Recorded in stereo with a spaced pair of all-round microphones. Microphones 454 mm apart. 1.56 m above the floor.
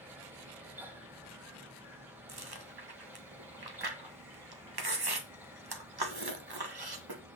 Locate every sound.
0.0 s a fan: 5° right (ahead or behind), 1.6 m
2.3 s chewing: 55° right (ahead or behind), 1.4 m